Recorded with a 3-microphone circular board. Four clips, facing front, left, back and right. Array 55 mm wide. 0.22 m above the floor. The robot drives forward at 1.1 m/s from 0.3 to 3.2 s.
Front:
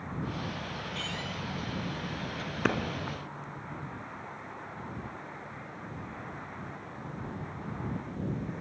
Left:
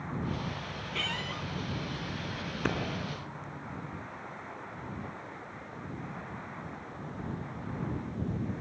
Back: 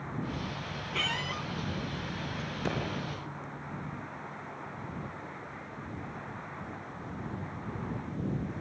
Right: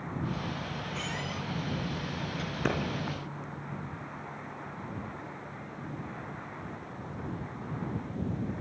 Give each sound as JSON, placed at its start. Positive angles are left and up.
{"t": 0.9, "sound": "a squeak", "azimuth_deg": 155, "distance_m": 0.8}
{"t": 2.6, "sound": "a clap", "azimuth_deg": 5, "distance_m": 2.5}